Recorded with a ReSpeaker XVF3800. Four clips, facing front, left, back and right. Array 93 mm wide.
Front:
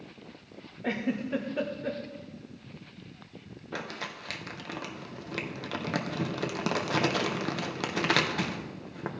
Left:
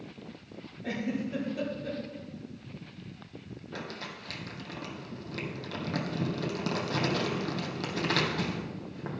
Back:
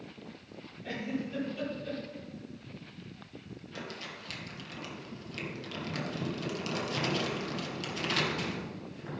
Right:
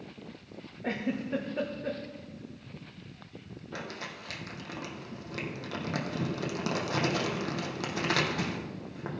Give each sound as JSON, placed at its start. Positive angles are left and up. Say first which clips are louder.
{"t": 0.8, "sound": "a giggle", "louder": "even, front 5 dB", "azimuth_deg": -35, "distance_m": 1.4}
{"t": 3.7, "sound": "crumpling", "louder": "right 1 dB, front 6 dB", "azimuth_deg": -10, "distance_m": 1.4}